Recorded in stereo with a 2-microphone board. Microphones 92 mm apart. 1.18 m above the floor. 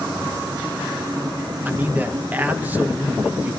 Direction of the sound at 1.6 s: 20° right (ahead or behind).